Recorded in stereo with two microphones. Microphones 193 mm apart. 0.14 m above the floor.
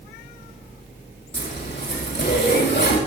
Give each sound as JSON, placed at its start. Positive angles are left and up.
{"t": 1.3, "sound": "a zipper", "side_deg": 70, "distance_m": 4.0}